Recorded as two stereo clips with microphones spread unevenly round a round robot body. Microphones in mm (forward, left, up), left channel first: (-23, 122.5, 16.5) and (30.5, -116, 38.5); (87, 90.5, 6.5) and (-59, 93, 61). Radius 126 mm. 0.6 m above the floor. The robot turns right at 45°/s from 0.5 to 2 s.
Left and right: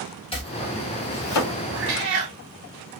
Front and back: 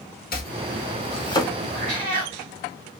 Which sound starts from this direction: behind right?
A cat meowing, at 1.7 s.